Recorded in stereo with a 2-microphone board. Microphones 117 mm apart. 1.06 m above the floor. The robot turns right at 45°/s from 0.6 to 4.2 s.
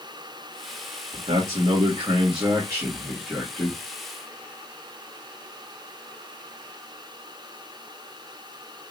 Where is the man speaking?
105° right, 1.9 m; by 3.8 s 15° left, 1.9 m.